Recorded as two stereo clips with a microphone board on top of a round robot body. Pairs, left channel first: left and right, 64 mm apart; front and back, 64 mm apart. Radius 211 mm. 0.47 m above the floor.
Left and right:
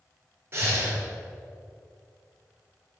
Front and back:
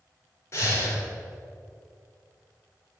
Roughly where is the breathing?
Ahead right.